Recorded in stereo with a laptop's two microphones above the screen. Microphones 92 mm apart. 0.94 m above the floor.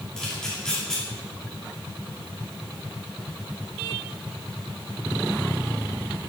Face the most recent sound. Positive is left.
turn(degrees=10)  # may be behind; listen again after turning